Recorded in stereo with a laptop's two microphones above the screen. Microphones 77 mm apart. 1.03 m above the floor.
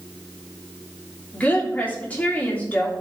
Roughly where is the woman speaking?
Left.